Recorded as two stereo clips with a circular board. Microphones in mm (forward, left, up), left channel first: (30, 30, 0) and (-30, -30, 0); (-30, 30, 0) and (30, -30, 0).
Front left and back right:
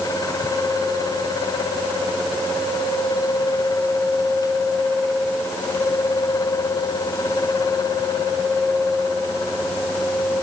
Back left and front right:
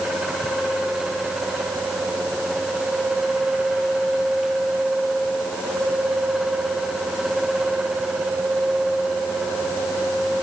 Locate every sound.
Only background noise.